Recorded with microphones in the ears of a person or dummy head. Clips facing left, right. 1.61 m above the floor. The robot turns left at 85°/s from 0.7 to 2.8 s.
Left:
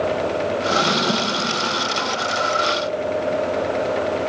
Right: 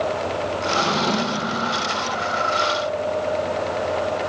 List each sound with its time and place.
0.7 s a drawer: 55° left, 0.9 m; by 1.5 s 15° right, 0.9 m